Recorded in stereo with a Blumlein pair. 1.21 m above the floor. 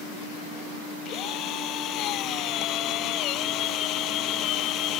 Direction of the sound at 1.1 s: 35° left.